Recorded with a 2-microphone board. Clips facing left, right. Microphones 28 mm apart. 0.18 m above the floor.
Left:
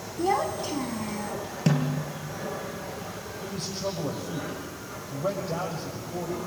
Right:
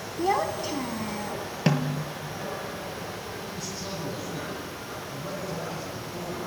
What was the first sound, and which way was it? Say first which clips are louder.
A child speaking: even; 5° right (ahead or behind).